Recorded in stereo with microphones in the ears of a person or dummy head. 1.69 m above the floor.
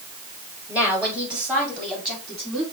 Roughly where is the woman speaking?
Centre.